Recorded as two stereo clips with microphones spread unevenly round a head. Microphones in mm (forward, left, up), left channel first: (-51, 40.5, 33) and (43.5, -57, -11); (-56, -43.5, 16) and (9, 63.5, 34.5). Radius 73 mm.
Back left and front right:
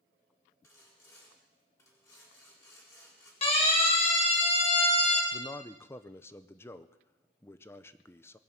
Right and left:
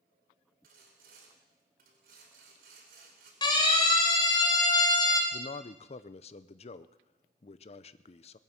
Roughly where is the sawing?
Ahead left.